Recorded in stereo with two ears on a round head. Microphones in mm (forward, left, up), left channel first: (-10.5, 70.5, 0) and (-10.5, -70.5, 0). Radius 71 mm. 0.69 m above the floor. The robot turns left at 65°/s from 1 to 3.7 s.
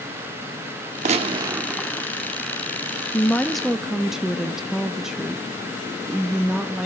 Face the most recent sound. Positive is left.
turn(degrees=-5)  # may be behind; listen again after turning